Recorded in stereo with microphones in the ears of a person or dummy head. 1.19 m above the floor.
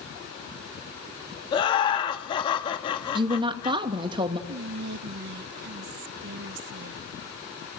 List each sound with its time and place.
1.5 s laughter: 35° left (ahead or behind), 2.5 m
3.1 s a woman speaking: 20° right (ahead or behind), 1.9 m
4.5 s whispering: 55° right (ahead or behind), 0.6 m